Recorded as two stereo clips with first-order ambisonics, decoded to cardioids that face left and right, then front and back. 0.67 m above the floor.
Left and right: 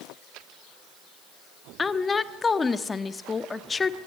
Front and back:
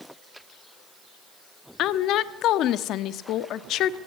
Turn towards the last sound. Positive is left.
turn(degrees=20)